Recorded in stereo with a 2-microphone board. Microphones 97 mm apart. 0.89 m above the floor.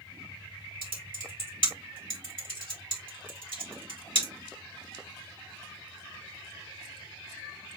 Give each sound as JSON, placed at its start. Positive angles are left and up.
{"t": 0.8, "sound": "typing on a keyboard", "side_deg": -60, "distance_m": 1.9}